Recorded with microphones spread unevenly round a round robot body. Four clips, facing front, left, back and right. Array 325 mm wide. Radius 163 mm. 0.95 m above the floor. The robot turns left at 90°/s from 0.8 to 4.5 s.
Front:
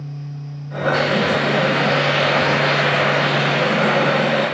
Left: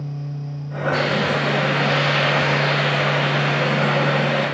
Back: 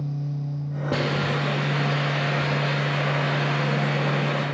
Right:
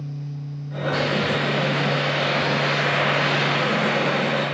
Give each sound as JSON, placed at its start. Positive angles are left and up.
{"t": 0.9, "sound": "a hiss", "azimuth_deg": 165, "distance_m": 1.2}